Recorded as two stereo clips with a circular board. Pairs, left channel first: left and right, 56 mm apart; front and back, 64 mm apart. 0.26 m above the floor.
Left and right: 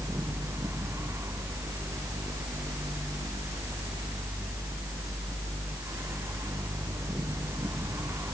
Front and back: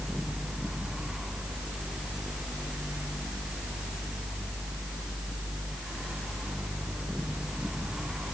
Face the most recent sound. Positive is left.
No sound to turn to.